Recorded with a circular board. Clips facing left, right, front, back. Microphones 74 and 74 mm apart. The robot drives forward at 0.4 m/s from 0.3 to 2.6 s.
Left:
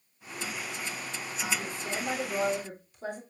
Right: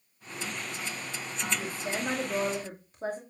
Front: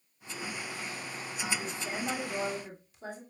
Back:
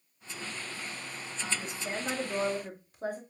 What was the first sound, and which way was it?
A woman speaking, 130° right.